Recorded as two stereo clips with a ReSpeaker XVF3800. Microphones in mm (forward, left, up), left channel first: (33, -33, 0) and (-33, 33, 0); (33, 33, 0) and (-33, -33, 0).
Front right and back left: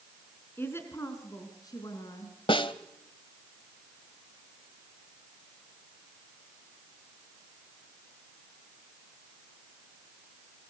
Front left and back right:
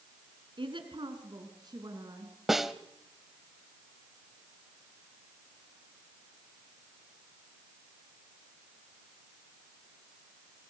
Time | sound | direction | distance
0.6 | a woman speaking | 110° right | 4.5 m
2.5 | a snare drum | 50° right | 1.2 m